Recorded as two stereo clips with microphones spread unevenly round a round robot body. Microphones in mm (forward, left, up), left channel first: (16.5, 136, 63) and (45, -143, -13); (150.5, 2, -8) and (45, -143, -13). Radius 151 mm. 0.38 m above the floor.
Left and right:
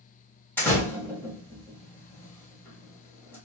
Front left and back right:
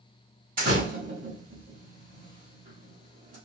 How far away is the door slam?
About 1.2 m.